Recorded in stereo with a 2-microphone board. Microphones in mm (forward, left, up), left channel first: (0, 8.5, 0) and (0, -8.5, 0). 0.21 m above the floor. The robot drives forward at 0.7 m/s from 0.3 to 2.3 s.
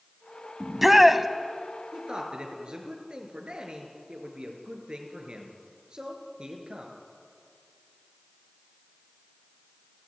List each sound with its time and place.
0.6 s a shout: 10° right (ahead or behind), 1.6 m
1.9 s a man speaking: 60° right (ahead or behind), 4.5 m; by 6.9 s 55° right (ahead or behind), 4.5 m